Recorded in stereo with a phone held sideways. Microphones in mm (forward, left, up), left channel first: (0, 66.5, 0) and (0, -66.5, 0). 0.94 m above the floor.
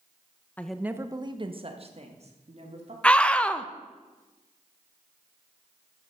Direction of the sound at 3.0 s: 10° left (ahead or behind).